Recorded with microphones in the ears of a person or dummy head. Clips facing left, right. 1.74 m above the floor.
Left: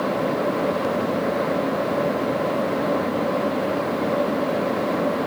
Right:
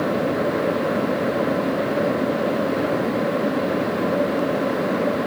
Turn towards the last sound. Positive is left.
No sound to turn to.